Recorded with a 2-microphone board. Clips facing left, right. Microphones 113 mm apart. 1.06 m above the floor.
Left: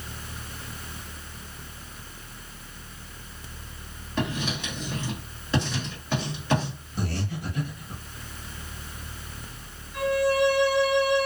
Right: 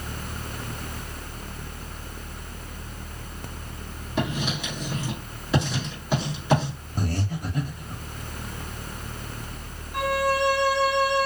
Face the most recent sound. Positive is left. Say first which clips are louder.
# left 1 dB
turn(degrees=-70)  # may be behind; listen again after turning